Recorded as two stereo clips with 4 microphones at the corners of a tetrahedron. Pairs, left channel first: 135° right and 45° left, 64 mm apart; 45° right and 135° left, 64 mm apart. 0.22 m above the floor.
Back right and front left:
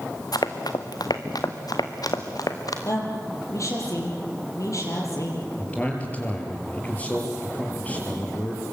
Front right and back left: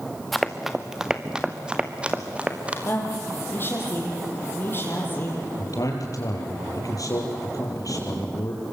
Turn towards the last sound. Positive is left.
turn(degrees=-70)